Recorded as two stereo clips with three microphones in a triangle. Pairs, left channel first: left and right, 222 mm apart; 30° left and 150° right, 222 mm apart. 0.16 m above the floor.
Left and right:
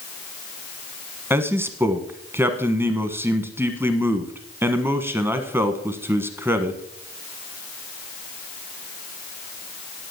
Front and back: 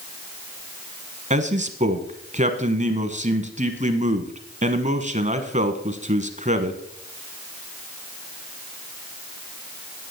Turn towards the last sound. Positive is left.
turn(degrees=-160)